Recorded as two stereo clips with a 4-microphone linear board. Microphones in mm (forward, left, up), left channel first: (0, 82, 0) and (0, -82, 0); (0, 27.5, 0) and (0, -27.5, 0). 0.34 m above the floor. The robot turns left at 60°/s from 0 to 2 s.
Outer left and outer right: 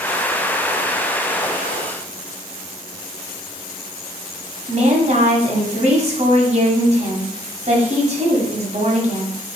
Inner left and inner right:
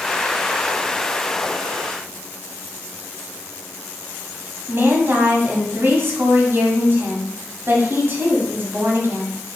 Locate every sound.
4.7 s a woman speaking: 45° right (ahead or behind), 2 m